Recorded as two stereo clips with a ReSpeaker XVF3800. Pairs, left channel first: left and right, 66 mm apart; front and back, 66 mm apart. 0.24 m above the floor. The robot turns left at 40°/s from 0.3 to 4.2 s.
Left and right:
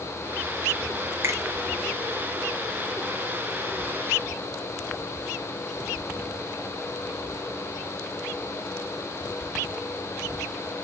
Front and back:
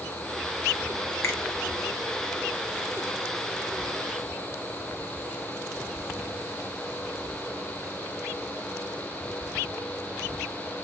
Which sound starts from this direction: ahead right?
A finger snap, at 1.2 s.